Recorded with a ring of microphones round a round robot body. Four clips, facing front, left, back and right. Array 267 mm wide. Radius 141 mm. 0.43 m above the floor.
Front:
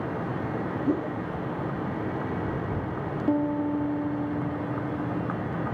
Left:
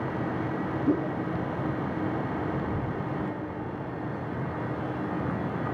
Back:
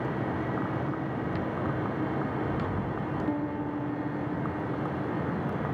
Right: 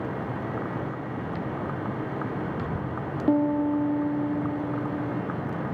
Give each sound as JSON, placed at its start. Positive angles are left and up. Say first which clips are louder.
{"t": 0.9, "sound": "a whoosh", "louder": "left 8 dB, front 6 dB", "azimuth_deg": 50}
{"t": 3.3, "sound": "a piano", "louder": "right 12 dB, front 10 dB", "azimuth_deg": -70}